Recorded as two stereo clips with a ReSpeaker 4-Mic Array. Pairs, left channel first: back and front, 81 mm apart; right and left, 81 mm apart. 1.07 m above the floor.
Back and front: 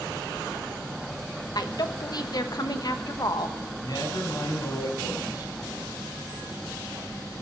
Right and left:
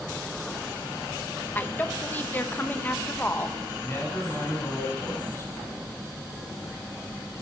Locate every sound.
1.6 s a woman speaking: 155° right, 1.2 m
3.8 s a man speaking: 150° right, 6 m